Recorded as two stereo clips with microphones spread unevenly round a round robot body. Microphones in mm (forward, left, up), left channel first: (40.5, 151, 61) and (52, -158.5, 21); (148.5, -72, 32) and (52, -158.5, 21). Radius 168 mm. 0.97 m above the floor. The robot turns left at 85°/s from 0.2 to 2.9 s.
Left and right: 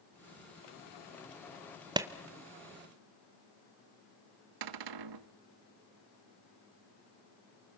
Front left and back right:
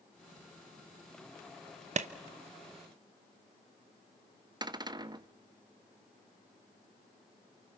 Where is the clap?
160° right, 0.7 m; by 2.1 s 170° right, 0.7 m.